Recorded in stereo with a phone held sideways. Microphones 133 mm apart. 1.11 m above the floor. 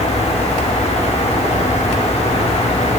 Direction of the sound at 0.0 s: 50° left (ahead or behind).